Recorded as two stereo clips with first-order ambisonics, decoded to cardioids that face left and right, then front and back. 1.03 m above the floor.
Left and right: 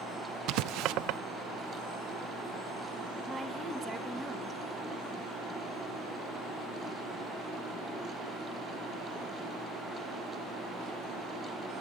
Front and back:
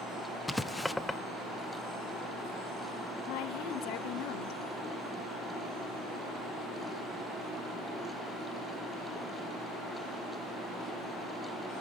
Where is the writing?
85° right, 0.5 m.